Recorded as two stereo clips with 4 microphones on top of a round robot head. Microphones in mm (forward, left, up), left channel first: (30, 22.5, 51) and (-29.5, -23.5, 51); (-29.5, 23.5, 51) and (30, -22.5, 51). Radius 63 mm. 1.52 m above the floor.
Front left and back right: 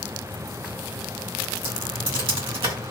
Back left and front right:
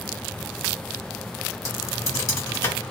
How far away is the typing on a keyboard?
About 1.7 m.